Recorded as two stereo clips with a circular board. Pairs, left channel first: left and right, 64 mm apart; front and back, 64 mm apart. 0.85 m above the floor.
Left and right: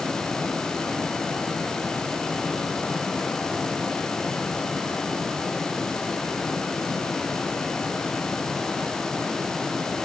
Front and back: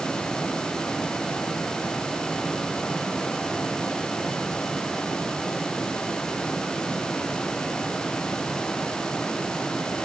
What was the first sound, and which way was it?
Only background noise.